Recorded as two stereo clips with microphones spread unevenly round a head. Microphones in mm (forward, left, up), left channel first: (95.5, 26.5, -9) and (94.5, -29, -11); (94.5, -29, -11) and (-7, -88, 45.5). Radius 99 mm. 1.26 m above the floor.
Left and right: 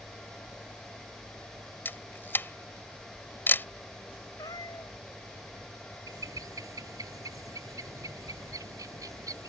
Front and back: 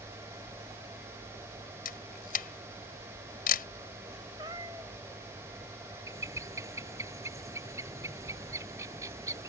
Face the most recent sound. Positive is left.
turn(degrees=-85)